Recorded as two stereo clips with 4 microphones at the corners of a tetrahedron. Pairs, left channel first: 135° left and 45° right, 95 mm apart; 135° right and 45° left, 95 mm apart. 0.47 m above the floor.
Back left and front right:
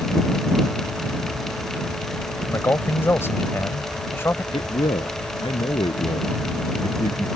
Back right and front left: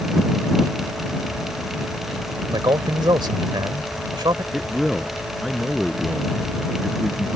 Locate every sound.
2.5 s a man speaking: 75° left
4.5 s a man speaking: 135° left